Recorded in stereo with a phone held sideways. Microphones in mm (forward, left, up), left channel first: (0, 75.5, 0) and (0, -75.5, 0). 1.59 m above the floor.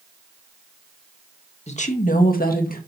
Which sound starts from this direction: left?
A woman speaking, at 1.7 s.